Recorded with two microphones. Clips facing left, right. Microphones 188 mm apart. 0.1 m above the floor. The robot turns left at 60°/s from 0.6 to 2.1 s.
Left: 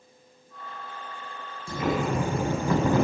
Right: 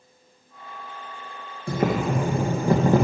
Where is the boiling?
60° right (ahead or behind), 2.5 m; by 3.0 s 35° right (ahead or behind), 2.5 m.